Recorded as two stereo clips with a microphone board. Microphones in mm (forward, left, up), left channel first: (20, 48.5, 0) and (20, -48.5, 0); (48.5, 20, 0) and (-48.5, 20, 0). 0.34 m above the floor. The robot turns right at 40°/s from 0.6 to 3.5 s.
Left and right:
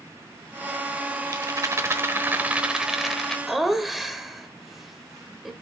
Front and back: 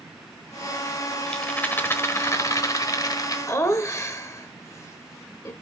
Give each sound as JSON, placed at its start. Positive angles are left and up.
{"t": 1.3, "sound": "a rattle", "azimuth_deg": -75, "distance_m": 1.0}
{"t": 3.5, "sound": "laughter", "azimuth_deg": -5, "distance_m": 0.9}